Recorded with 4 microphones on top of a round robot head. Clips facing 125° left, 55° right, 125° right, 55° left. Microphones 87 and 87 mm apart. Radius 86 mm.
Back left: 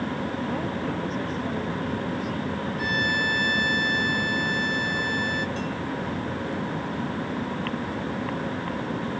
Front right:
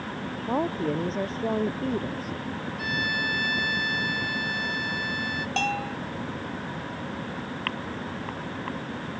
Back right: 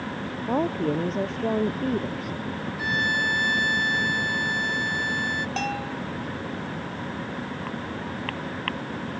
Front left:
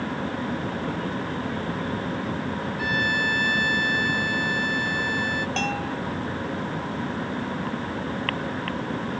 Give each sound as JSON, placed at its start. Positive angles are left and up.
{"t": 0.5, "sound": "a woman speaking", "azimuth_deg": -110}
{"t": 2.8, "sound": "a violin", "azimuth_deg": 170}
{"t": 5.6, "sound": "a bell", "azimuth_deg": -40}